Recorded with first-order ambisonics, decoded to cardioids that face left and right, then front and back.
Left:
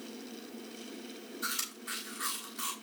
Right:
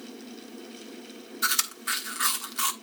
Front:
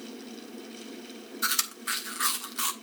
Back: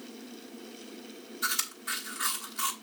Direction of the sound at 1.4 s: 65° right.